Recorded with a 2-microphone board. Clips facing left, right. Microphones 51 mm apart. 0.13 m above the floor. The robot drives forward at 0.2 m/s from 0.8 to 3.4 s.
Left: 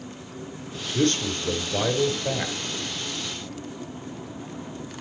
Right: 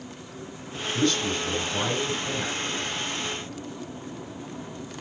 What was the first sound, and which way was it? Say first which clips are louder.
A man speaking: left 1 dB; 50° left (ahead or behind).